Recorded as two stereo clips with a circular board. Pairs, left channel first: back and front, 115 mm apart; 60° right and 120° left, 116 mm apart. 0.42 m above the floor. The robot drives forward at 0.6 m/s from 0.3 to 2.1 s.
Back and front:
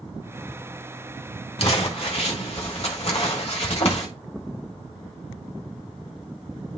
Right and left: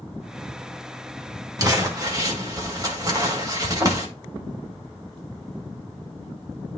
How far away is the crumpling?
About 1.8 m.